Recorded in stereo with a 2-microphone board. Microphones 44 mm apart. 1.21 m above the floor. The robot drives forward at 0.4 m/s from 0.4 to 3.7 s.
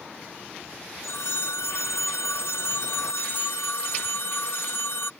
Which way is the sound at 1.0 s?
70° left (ahead or behind).